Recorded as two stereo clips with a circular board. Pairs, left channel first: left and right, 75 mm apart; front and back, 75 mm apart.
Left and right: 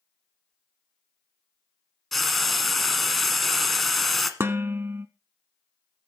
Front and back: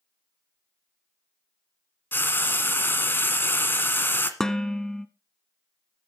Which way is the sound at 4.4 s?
75° right.